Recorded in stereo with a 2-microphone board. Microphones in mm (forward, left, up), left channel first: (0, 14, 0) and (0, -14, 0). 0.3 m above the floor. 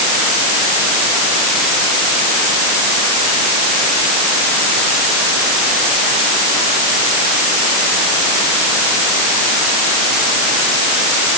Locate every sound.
Only background noise.